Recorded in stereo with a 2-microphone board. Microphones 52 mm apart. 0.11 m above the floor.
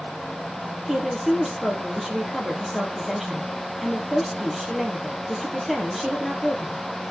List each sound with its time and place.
0.9 s a woman speaking: 5° right (ahead or behind), 3 m